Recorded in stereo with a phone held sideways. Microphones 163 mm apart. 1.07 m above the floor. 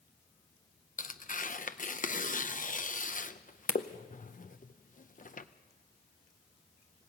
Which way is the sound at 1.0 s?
55° left (ahead or behind).